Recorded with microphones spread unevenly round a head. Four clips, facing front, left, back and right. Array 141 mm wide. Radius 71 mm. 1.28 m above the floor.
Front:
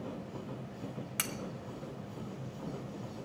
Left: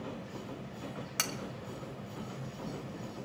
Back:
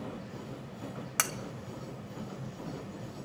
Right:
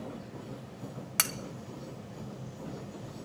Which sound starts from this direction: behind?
Cutlery clinking, at 1.2 s.